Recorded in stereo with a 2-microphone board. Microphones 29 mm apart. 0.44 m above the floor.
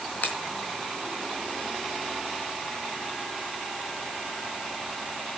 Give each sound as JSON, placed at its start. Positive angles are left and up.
{"t": 0.2, "sound": "a finger snap", "side_deg": 65, "distance_m": 4.5}